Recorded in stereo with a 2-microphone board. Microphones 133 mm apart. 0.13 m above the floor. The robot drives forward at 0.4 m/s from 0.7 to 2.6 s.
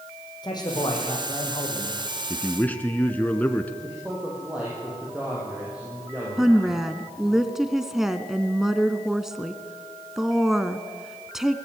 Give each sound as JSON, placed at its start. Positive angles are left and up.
{"t": 0.4, "sound": "a man speaking", "side_deg": 35, "distance_m": 7.0}
{"t": 2.3, "sound": "a man speaking", "side_deg": 15, "distance_m": 1.5}
{"t": 3.8, "sound": "a man speaking", "side_deg": -10, "distance_m": 7.0}
{"t": 6.4, "sound": "a woman speaking", "side_deg": -5, "distance_m": 1.2}